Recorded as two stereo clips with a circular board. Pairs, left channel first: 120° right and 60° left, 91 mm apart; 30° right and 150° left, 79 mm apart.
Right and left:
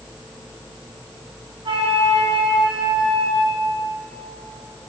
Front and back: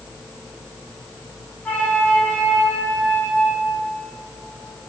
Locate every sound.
1.6 s a flute: 40° left, 8.5 m